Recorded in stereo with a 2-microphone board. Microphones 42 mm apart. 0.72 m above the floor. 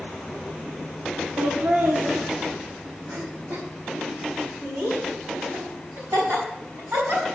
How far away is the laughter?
About 1.3 m.